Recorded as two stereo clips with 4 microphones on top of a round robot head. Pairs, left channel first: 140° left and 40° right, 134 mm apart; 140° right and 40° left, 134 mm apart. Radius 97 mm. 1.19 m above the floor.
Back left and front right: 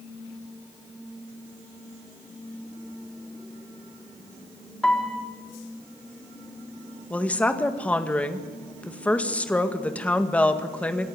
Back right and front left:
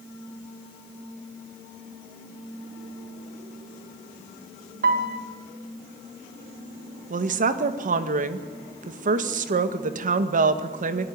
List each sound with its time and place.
4.8 s a piano: 55° left, 3 m
7.1 s a woman speaking: 60° left, 1.9 m